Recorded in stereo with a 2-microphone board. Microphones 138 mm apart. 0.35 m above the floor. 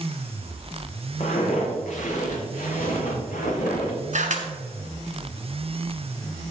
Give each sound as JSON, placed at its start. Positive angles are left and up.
{"t": 1.2, "sound": "footsteps", "side_deg": 60, "distance_m": 4.0}
{"t": 4.1, "sound": "a camera shutter", "side_deg": -65, "distance_m": 1.2}